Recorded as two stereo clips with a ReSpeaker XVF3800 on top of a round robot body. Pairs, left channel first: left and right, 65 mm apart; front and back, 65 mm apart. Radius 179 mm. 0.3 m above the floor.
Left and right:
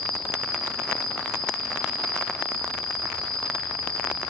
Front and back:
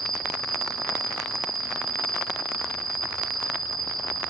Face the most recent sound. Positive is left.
turn(degrees=170)